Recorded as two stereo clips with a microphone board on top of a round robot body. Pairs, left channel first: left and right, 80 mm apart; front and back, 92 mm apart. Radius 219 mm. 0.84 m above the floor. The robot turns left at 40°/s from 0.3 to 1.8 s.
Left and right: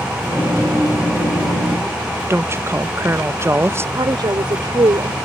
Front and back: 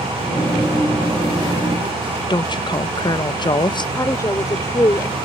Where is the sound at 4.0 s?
60° right.